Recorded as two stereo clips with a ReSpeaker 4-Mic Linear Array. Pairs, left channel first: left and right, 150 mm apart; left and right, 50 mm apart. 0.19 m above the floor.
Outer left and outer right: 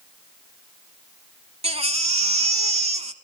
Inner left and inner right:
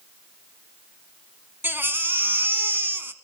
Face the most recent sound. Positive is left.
turn(degrees=-45)  # may be behind; listen again after turning